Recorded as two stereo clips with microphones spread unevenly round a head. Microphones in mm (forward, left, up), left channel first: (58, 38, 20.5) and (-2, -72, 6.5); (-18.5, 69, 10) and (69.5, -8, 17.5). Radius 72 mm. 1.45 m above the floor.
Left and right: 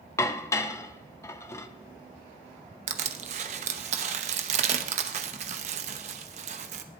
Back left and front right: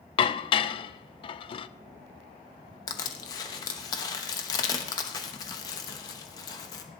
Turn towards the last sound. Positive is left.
turn(degrees=-155)